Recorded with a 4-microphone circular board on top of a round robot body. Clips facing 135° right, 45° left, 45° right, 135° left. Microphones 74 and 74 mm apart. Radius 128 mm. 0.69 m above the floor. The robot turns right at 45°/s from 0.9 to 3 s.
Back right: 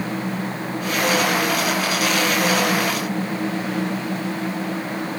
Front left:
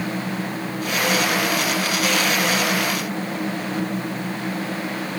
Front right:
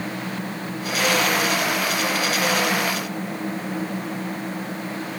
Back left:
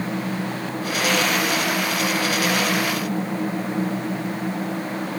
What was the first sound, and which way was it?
Only background noise.